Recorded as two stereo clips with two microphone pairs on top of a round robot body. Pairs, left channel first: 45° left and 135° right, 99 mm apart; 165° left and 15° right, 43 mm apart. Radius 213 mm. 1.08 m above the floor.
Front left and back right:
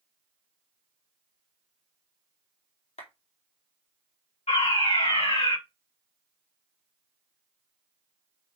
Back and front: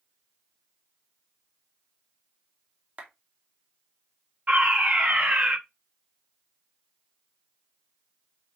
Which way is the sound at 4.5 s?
40° left.